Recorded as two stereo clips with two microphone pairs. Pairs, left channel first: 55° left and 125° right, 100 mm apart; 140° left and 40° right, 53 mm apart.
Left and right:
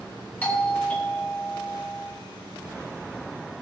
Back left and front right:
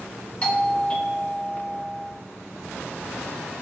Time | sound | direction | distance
0.4 | a doorbell | 110° left | 1.4 m